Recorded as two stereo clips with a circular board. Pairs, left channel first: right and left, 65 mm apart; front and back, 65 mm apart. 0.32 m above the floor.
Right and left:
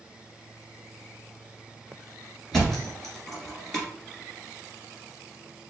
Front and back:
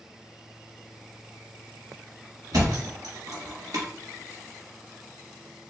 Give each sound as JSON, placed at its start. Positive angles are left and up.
{"t": 2.5, "sound": "a thud", "azimuth_deg": -175, "distance_m": 2.0}